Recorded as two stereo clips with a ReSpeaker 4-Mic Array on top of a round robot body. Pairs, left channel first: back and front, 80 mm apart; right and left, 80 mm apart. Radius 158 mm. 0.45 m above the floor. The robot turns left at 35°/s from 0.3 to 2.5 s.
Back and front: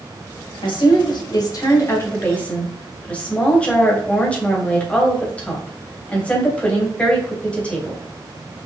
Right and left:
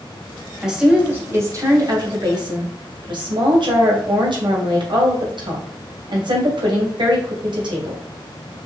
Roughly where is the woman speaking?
Behind.